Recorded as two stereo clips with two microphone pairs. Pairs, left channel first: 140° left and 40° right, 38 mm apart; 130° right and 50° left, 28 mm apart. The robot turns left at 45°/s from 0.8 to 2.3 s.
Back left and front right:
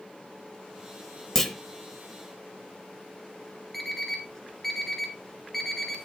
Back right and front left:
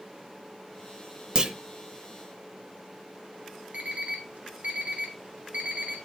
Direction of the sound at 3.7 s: 60° left.